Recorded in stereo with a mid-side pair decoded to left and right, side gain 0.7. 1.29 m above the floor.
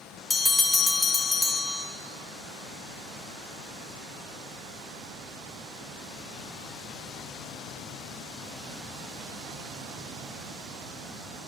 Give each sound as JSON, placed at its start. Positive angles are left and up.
{"t": 0.3, "sound": "a bell", "azimuth_deg": 10, "distance_m": 0.8}